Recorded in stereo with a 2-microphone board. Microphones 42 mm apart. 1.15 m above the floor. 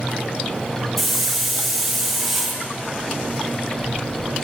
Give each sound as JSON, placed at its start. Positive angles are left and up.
{"t": 1.0, "sound": "a hiss", "side_deg": -5, "distance_m": 1.8}